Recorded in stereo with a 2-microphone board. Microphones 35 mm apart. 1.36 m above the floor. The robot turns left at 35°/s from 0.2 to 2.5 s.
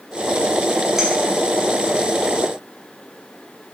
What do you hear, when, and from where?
1.0 s a clink: 10° right (ahead or behind), 0.9 m; by 1.1 s 5° right (ahead or behind), 0.9 m